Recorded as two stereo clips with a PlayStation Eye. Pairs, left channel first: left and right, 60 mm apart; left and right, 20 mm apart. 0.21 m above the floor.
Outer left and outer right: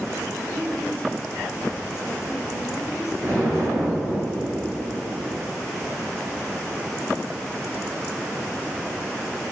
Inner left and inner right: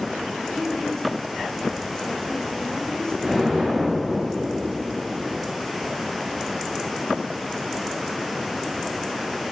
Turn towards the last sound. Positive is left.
turn(degrees=15)  # may be behind; listen again after turning